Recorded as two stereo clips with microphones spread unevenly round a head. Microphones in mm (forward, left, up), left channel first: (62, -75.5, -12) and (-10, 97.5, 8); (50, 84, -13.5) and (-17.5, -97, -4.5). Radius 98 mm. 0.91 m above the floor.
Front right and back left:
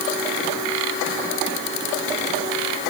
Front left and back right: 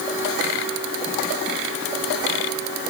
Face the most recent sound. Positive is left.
No sound to turn to.